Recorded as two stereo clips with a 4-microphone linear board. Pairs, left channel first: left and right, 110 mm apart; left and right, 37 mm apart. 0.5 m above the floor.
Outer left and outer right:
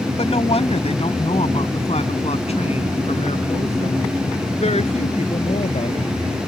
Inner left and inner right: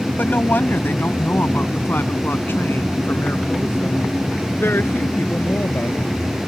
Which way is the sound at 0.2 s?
65° left (ahead or behind).